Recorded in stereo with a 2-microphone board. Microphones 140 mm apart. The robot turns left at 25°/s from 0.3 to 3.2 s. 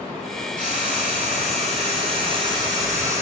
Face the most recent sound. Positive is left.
turn(degrees=-160)